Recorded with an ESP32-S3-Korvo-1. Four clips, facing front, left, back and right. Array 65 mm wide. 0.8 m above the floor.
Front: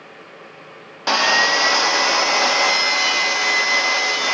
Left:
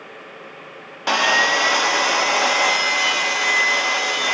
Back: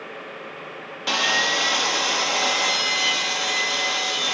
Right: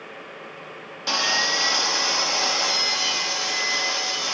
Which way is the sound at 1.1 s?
45° left.